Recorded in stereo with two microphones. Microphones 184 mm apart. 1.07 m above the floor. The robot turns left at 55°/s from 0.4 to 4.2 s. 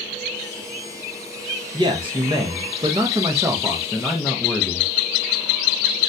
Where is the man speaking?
25° right (ahead or behind), 0.6 m; by 4.9 s 5° left (ahead or behind), 0.6 m.